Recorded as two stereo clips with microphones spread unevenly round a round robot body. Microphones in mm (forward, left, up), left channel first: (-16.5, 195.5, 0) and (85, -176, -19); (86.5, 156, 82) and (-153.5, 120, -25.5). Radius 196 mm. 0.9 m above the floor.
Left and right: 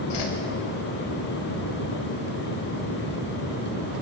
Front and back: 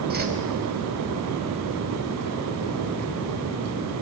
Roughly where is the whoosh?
Behind left.